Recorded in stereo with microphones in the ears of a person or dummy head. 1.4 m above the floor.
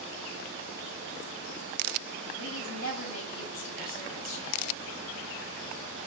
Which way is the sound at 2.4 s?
90° left.